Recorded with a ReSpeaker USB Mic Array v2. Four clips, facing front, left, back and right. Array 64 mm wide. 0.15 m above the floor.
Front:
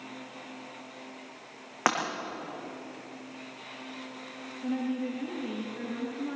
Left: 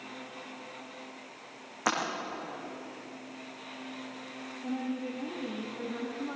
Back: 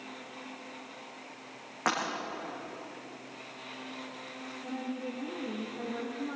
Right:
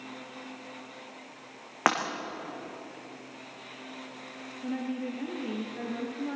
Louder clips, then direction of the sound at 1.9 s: Right 5 dB, front 4 dB; 65° right.